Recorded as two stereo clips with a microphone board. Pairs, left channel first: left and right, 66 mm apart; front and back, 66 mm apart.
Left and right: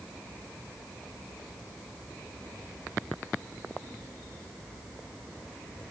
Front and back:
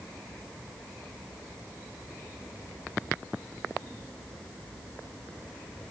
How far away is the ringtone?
No ringtone in this recording.